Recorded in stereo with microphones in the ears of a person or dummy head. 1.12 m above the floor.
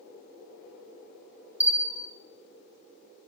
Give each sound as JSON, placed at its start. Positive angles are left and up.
{"t": 1.6, "sound": "a bell", "side_deg": -10, "distance_m": 1.2}